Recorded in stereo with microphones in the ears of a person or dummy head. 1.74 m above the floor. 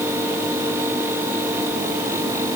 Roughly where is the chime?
I don't hear a chime.